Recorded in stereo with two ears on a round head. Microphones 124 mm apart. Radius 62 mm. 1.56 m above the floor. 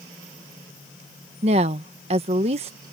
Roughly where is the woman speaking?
Right.